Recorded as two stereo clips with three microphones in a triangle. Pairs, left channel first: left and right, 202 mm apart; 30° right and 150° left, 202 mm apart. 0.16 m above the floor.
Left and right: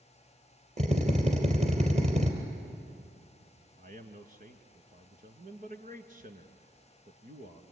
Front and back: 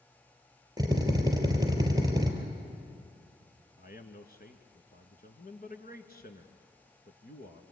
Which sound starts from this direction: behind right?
A drill, at 0.8 s.